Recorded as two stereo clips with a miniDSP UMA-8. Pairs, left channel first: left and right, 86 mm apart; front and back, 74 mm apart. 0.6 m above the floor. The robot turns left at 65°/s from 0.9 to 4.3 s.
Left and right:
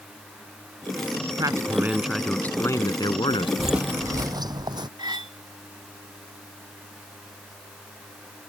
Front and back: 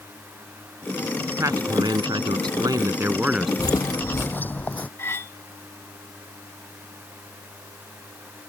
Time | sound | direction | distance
1.4 | a man speaking | 130° right | ?
3.6 | footsteps | straight ahead | ?
5.0 | cutlery clinking | 60° right | ?